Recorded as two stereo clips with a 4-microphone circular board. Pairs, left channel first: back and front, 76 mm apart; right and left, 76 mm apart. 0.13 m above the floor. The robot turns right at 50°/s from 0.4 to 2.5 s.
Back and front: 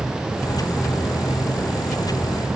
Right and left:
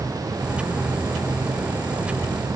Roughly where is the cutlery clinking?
I don't hear cutlery clinking.